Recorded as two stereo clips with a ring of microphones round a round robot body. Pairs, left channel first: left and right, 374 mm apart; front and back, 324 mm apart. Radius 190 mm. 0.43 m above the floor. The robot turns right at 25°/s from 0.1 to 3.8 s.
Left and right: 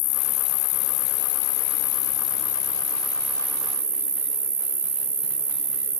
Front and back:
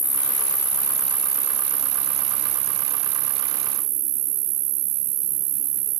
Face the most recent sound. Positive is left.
turn(degrees=-165)